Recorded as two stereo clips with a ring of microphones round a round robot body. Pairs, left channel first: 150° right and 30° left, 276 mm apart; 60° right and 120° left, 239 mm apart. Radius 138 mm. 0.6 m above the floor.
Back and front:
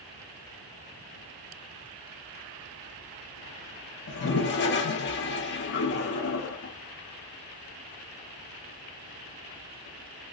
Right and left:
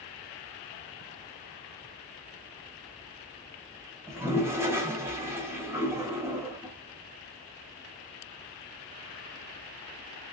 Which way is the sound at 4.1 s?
165° right.